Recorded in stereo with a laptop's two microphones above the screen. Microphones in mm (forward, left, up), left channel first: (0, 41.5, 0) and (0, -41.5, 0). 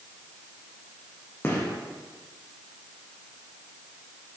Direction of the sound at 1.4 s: 25° left (ahead or behind).